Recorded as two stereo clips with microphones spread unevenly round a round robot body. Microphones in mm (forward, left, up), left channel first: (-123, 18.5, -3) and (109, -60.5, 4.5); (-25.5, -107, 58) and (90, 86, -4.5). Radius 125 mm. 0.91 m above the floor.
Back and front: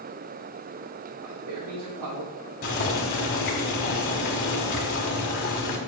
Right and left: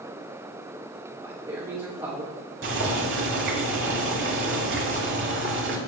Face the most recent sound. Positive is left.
turn(degrees=105)